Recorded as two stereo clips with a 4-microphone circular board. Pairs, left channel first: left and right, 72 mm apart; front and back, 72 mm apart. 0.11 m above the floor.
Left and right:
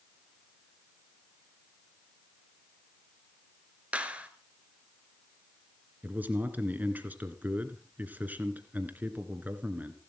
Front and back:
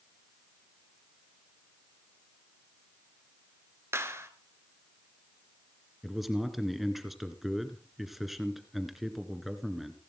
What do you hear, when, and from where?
3.9 s a clap: 155° right, 1.8 m
6.0 s a man speaking: 95° right, 1.8 m